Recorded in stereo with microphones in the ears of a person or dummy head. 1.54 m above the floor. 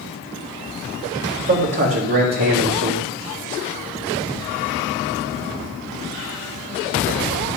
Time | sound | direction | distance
1.4 | a man speaking | 40° right (ahead or behind) | 3 m